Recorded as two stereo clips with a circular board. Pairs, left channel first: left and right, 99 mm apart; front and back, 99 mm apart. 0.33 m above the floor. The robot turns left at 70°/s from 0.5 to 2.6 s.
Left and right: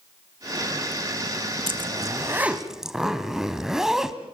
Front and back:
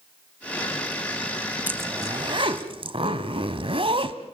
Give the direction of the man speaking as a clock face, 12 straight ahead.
I don't hear a man speaking.